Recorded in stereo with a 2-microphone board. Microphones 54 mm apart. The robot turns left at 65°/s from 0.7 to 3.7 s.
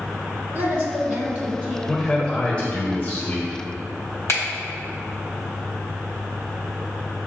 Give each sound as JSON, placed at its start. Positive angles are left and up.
{"t": 0.5, "sound": "a woman speaking", "azimuth_deg": -80, "distance_m": 1.8}
{"t": 1.9, "sound": "a man speaking", "azimuth_deg": 180, "distance_m": 1.0}
{"t": 4.3, "sound": "a finger snap", "side_deg": 60, "distance_m": 1.9}